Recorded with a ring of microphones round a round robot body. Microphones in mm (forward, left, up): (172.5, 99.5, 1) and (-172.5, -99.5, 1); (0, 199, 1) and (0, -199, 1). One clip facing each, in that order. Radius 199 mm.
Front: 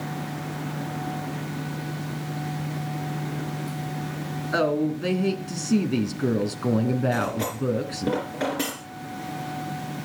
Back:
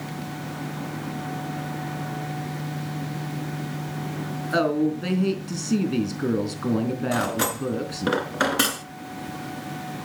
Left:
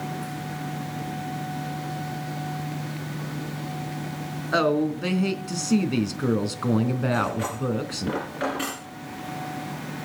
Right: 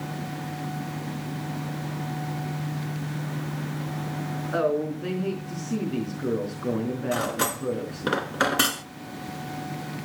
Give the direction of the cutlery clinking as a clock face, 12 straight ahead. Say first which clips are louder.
Back 1 dB, left 1 dB; 3 o'clock.